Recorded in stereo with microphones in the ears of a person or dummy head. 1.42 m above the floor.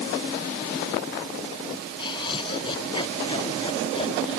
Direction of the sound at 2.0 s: 25° left (ahead or behind).